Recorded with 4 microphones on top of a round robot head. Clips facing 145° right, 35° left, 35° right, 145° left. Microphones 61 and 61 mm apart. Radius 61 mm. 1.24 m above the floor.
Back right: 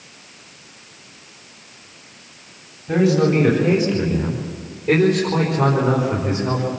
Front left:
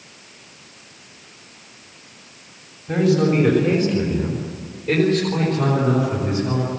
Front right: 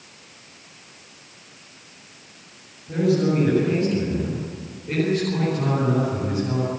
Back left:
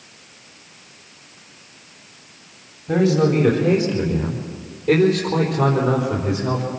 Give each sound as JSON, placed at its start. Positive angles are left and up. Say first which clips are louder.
{"t": 2.9, "sound": "a man speaking", "louder": "back right 1 dB, back left 3 dB", "azimuth_deg": 135, "distance_m": 4.0}